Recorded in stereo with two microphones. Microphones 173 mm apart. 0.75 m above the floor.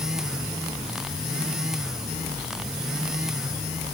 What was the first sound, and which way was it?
Only background noise.